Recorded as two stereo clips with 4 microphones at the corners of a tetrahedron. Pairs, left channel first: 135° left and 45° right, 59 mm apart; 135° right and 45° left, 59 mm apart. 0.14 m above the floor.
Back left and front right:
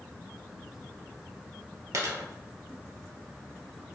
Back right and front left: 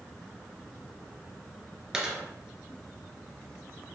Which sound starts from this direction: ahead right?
A dropped coin, at 1.9 s.